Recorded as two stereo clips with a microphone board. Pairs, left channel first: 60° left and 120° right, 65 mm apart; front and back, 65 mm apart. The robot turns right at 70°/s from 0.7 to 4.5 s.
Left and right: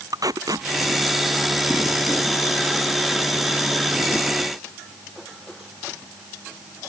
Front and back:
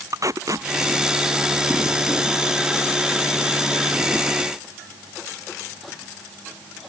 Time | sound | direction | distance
0.1 | tape being pulled | 145° right | ?